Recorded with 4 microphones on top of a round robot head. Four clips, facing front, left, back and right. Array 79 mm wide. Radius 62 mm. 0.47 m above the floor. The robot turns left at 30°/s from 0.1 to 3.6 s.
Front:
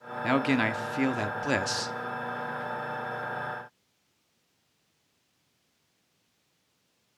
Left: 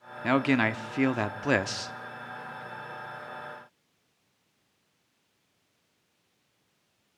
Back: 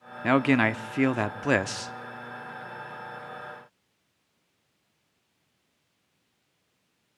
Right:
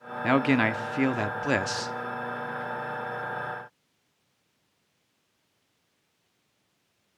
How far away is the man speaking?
About 0.8 m.